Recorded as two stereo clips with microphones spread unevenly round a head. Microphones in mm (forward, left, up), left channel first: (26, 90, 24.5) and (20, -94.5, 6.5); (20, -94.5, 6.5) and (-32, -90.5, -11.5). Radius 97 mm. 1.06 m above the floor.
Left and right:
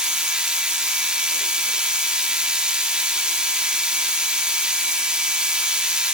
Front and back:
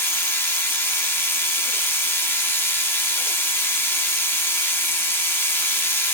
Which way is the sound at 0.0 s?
5° right.